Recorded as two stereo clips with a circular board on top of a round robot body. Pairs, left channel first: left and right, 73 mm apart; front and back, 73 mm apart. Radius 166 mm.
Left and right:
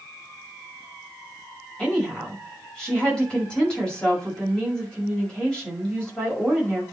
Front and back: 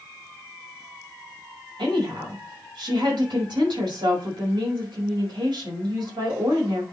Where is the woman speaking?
170° left, 5.5 m.